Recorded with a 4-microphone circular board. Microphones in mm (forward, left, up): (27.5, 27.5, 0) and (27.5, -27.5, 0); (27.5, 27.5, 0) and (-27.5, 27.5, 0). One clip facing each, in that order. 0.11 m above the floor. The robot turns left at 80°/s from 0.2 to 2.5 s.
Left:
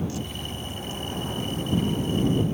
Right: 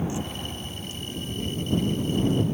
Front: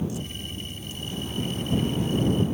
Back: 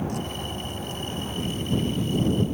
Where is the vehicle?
155° right; by 2.5 s 20° left.